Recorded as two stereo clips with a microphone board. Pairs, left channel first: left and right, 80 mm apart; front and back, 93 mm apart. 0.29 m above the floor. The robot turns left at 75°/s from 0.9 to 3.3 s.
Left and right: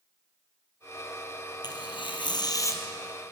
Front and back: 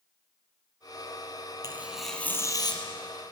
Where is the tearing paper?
120° left, 3 m; by 2.8 s 30° left, 3 m.